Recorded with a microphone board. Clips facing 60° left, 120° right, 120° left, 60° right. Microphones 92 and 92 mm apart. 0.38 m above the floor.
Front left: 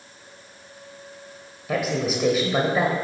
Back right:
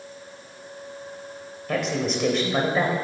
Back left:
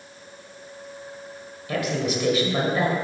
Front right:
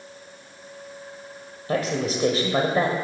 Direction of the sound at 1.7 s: 20° right.